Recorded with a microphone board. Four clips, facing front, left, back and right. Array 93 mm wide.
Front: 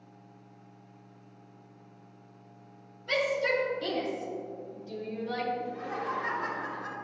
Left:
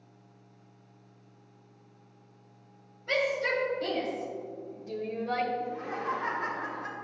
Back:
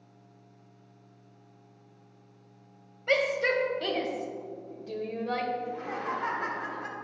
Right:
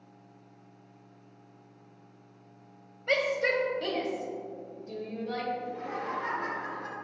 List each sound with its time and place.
3.1 s a shout: 145° right, 1.9 m; by 5.5 s 145° left, 1.4 m
5.6 s laughter: 175° left, 3 m